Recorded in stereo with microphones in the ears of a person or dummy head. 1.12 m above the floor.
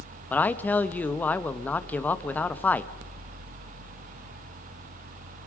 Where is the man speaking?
10° left (ahead or behind), 1.1 m.